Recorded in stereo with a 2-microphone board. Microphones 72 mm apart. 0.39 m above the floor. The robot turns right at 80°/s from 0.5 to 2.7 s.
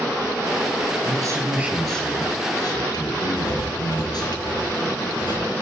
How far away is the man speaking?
About 6 m.